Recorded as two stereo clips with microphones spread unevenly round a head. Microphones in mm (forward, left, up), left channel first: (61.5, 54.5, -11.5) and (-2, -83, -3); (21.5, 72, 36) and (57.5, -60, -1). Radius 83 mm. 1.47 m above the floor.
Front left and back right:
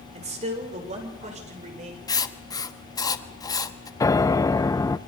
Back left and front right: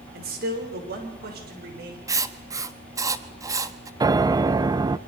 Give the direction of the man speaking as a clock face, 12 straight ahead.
2 o'clock.